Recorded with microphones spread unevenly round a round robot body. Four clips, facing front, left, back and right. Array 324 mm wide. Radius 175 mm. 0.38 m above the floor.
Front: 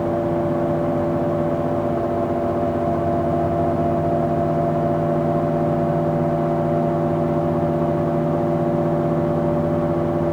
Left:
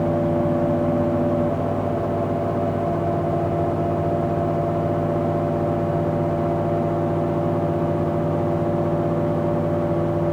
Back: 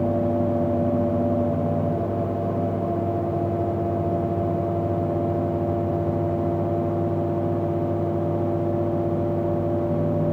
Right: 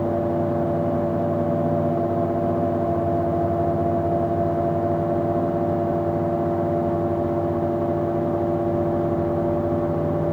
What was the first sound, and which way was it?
Only background noise.